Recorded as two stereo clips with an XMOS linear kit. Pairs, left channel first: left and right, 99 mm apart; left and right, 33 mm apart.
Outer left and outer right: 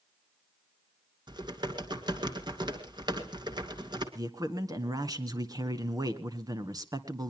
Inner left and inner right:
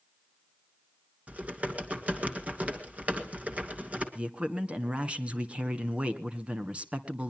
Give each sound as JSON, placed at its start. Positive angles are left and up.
{"t": 1.3, "sound": "typing on a keyboard", "side_deg": -40, "distance_m": 2.5}
{"t": 4.2, "sound": "a man speaking", "side_deg": -35, "distance_m": 1.8}